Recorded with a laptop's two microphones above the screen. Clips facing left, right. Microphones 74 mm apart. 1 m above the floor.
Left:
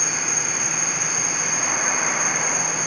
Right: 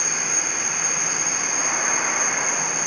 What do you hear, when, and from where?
0.0 s an insect: 25° right (ahead or behind), 4.5 m